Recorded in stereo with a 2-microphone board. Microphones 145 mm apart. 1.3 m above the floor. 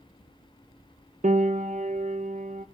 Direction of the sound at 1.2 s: 60° right (ahead or behind).